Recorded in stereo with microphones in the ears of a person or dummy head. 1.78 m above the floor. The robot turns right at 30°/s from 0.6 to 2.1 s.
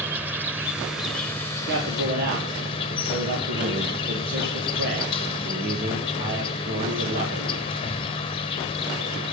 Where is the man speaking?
70° right (ahead or behind), 2.5 m; by 7.7 s 55° right (ahead or behind), 2.5 m.